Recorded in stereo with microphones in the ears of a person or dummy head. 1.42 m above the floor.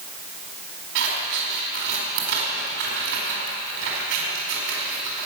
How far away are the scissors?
About 4.5 m.